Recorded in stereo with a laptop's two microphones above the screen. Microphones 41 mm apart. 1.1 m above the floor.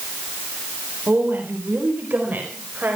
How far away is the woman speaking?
About 4 m.